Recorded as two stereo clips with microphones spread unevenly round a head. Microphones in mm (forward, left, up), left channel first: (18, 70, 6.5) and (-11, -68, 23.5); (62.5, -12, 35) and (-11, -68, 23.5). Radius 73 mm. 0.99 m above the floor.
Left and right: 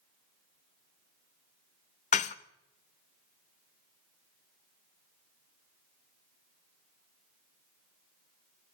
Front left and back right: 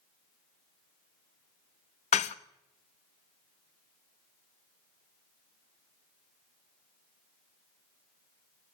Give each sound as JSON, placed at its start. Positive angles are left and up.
{"t": 2.1, "sound": "dishes clattering", "azimuth_deg": 35, "distance_m": 0.6}